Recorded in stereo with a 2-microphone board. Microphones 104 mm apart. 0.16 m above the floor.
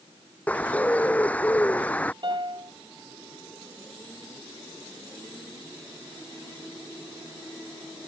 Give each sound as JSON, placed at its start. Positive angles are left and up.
{"t": 0.5, "sound": "a bird", "side_deg": 15}
{"t": 2.2, "sound": "a piano", "side_deg": -50}